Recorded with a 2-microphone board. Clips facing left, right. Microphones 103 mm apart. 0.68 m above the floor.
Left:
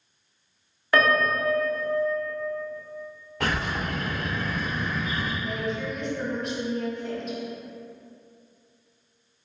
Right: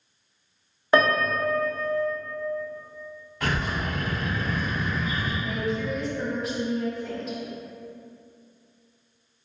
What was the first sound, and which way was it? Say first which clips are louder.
A piano: right 1 dB; 25° right (ahead or behind).